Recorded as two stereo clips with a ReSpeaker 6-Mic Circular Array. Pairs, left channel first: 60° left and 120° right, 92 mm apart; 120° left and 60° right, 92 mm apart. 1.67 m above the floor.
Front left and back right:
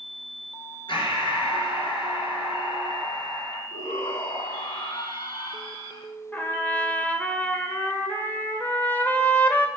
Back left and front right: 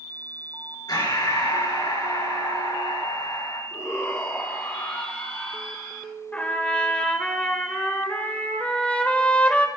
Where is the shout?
60° left, 1.8 m.